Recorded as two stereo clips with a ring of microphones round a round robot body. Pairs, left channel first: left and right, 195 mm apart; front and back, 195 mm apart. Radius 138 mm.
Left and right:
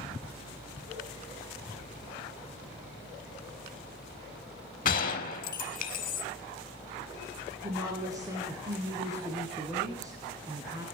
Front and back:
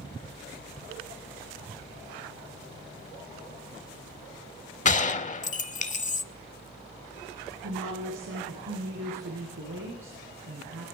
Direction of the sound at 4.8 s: 45° left.